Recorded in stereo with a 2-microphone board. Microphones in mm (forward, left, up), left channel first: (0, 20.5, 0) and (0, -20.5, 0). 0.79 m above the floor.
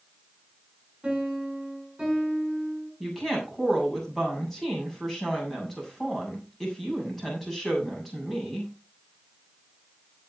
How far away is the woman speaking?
About 7 m.